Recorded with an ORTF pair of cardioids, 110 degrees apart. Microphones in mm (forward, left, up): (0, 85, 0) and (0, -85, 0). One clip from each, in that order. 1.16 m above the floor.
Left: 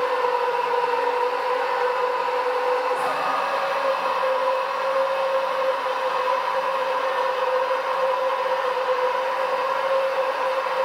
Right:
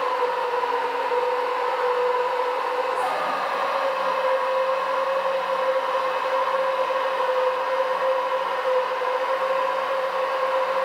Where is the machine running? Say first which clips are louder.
Left 2 dB; 15° left, 1.7 m.